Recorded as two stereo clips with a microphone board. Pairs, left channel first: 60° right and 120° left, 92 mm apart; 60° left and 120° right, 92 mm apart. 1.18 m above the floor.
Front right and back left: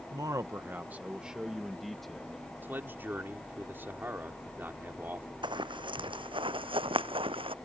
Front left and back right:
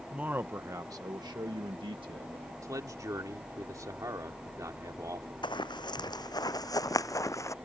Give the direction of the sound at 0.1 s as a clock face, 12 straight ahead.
7 o'clock.